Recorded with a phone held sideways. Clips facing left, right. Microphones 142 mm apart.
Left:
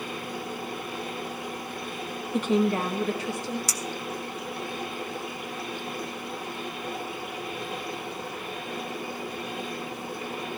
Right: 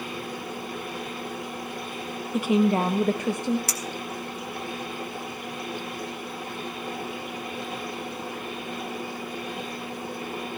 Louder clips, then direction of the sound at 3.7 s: Even; 60° right (ahead or behind).